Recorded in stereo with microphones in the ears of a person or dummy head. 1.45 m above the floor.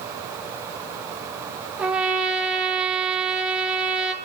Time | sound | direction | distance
1.8 | a trumpet | 10° right (ahead or behind) | 0.9 m